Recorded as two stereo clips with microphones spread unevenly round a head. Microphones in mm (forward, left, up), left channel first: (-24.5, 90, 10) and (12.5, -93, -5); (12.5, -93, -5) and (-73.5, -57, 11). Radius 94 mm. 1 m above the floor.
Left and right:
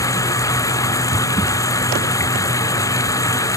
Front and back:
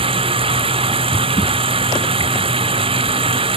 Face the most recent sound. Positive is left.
turn(degrees=175)